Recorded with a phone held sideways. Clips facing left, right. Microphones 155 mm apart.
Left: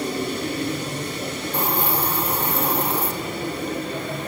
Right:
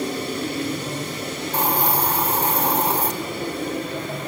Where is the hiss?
80° right, 3 m.